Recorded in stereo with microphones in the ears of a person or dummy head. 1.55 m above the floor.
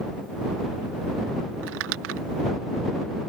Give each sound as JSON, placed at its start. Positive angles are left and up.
{"t": 1.6, "sound": "crumpling", "side_deg": -75}